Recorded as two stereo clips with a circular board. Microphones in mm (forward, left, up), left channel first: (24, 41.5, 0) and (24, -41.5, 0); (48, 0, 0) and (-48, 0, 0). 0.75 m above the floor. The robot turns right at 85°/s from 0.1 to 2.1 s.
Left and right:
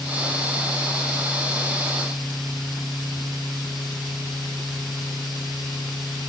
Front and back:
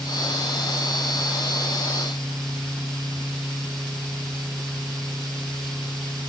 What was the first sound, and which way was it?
Only background noise.